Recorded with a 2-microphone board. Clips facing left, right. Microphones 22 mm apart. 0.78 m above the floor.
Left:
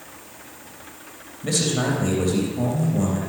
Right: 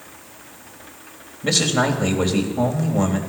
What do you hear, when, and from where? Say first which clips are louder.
1.4 s a man speaking: right 4 dB; 40° right (ahead or behind), 3 m